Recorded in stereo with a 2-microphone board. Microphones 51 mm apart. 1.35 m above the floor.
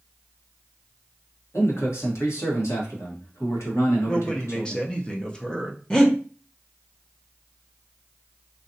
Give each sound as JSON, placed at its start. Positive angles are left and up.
{"t": 1.5, "sound": "a man speaking", "side_deg": 70, "distance_m": 1.4}
{"t": 4.1, "sound": "a man speaking", "side_deg": 20, "distance_m": 0.7}
{"t": 5.9, "sound": "breathing", "side_deg": 15, "distance_m": 0.7}